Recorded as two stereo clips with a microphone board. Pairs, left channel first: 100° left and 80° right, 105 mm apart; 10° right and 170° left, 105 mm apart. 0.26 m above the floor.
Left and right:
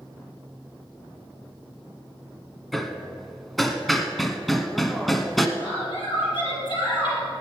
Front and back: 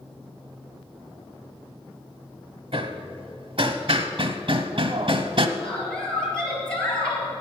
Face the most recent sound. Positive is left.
turn(degrees=70)